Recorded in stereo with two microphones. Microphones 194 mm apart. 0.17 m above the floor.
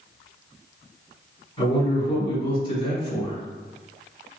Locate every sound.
1.6 s a man speaking: 20° left (ahead or behind), 1.3 m